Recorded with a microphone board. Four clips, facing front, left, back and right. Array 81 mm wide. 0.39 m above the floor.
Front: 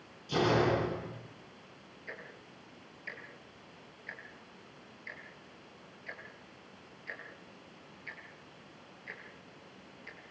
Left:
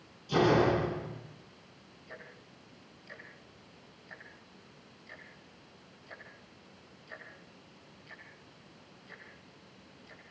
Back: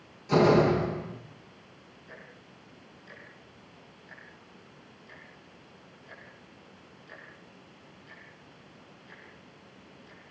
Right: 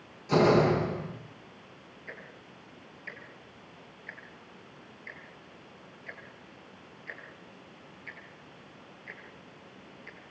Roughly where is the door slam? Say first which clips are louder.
Right 3 dB, back 7 dB; behind right.